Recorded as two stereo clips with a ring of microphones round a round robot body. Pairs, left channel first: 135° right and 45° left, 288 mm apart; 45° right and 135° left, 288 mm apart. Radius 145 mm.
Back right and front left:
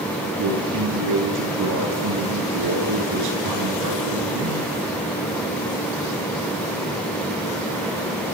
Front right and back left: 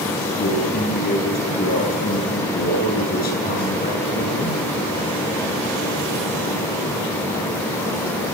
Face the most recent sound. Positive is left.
turn(degrees=15)